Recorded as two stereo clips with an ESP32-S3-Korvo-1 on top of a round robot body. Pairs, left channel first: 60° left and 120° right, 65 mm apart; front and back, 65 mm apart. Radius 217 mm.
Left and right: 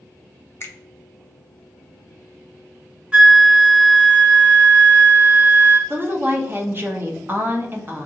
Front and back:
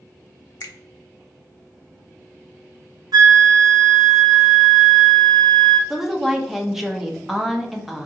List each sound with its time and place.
0.6 s a finger snap: 20° left, 0.7 m
3.1 s a flute: 165° left, 0.5 m
5.9 s a woman speaking: 100° right, 0.8 m